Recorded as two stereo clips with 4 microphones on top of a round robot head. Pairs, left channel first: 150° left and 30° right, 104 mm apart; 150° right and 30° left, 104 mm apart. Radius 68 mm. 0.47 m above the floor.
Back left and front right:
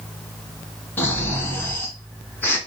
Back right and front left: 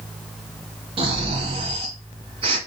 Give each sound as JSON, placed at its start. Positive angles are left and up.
{"t": 1.0, "sound": "snoring", "azimuth_deg": 75, "distance_m": 1.8}